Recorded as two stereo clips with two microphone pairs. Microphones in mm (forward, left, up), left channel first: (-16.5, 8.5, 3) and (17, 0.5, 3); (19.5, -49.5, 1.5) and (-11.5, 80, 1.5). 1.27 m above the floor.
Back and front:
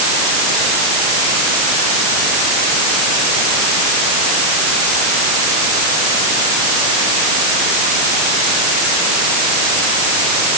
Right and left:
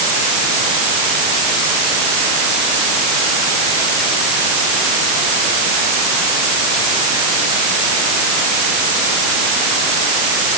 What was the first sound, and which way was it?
Only background noise.